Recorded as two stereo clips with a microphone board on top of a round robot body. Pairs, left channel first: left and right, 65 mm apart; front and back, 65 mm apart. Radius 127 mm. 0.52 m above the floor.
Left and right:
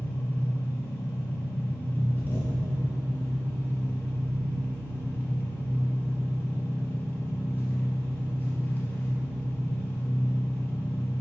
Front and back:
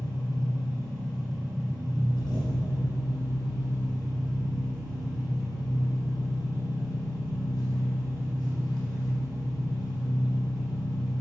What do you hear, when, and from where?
0.0 s an engine running: 25° left, 3.5 m